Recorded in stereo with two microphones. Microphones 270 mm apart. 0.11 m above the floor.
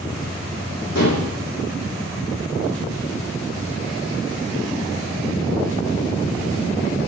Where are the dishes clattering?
70° left (ahead or behind), 3 m.